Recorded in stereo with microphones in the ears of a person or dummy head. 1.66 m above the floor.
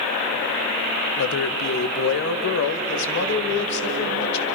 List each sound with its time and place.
1.2 s a man speaking: 75° left (ahead or behind), 1.3 m; by 4.5 s 60° left (ahead or behind), 3 m